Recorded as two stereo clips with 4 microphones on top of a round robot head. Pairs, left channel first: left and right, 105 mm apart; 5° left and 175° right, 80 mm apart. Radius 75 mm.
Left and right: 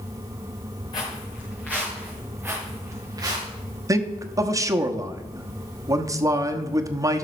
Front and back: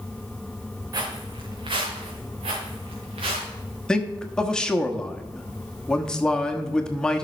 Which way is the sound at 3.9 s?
65° right.